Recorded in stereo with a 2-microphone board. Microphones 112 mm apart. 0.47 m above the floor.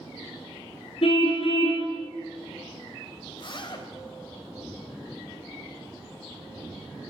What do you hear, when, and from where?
1.0 s a car horn: 65° left (ahead or behind), 3 m
3.3 s a zipper: 50° left (ahead or behind), 3 m